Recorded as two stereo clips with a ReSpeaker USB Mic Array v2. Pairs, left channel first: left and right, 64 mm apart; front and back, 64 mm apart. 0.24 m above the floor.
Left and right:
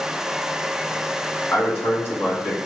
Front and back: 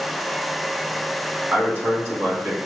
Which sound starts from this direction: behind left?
A man speaking, at 1.5 s.